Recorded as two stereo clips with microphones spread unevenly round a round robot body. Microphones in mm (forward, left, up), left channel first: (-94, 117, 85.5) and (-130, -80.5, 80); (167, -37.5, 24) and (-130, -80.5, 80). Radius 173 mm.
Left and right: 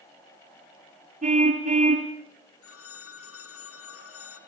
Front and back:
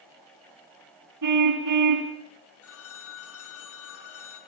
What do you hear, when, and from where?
1.2 s a car horn: 155° right, 4.5 m
2.6 s a phone ringing: 60° left, 3 m